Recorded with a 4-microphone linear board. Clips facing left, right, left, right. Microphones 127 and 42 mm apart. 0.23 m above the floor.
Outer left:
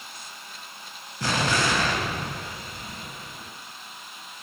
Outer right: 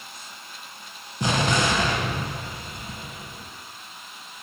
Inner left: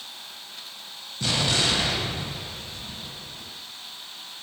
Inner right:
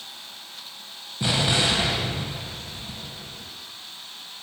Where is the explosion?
20° right (ahead or behind), 0.6 m.